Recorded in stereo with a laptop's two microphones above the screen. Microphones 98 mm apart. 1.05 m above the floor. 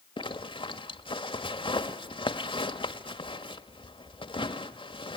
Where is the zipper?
65° left (ahead or behind), 1.5 m.